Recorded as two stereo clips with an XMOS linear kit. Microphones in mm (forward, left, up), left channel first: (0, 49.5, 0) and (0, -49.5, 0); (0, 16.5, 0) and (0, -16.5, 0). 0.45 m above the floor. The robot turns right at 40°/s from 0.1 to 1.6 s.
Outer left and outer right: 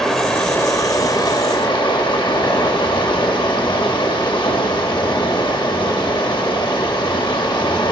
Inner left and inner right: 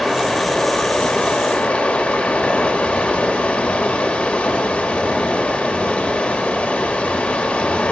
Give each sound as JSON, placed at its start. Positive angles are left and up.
{"t": 0.0, "sound": "running water", "azimuth_deg": 5, "distance_m": 1.1}